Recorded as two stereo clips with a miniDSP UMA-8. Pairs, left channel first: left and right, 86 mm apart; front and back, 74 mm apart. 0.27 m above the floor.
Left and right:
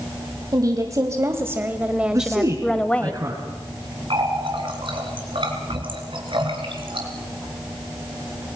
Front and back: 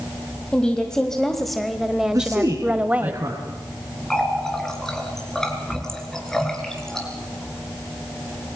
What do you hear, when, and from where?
0.5 s a woman speaking: 70° right, 1.7 m; by 3.1 s 140° left, 1.3 m
2.1 s a man speaking: 140° right, 2.5 m
4.1 s a running tap: 80° right, 3 m